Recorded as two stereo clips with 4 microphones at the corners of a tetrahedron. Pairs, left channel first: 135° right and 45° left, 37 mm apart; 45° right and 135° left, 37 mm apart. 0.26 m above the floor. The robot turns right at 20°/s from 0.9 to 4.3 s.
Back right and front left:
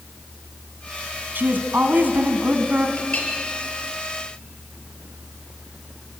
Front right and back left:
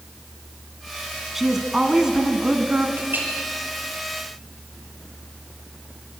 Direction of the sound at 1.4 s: 55° left.